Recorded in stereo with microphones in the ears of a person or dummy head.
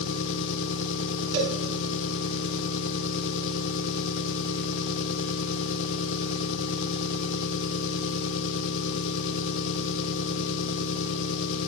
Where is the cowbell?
65° right (ahead or behind), 5.5 m.